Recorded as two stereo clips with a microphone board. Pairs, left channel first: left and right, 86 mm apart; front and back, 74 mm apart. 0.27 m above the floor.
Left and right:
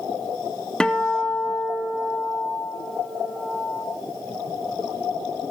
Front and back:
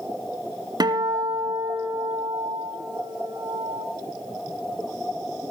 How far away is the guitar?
About 1.6 m.